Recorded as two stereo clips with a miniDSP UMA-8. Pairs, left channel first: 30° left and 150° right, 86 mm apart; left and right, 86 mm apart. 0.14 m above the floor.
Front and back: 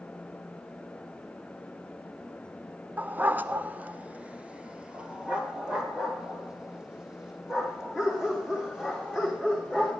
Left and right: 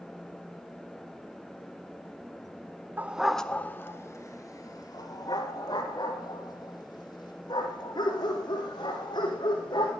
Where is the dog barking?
110° right, 0.5 m; by 9.9 s 125° left, 4.5 m.